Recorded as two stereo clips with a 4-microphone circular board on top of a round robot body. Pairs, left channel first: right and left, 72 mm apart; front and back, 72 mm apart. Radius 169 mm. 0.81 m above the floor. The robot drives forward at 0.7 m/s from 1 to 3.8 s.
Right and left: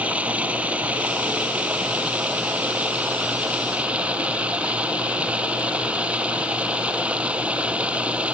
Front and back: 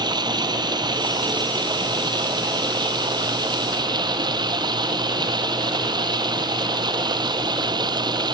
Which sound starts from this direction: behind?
Running water, at 0.0 s.